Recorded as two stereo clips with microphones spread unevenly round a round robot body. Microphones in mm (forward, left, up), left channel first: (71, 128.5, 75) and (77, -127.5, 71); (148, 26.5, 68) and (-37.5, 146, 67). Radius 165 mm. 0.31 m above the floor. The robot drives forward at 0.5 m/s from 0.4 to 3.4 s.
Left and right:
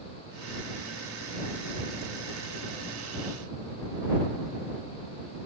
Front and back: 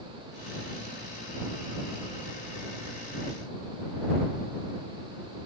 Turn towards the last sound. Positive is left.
No sound to turn to.